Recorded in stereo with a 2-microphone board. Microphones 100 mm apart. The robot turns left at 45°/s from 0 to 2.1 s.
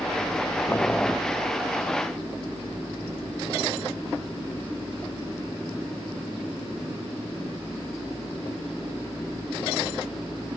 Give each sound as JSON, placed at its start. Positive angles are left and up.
{"t": 0.7, "sound": "boiling", "side_deg": 20}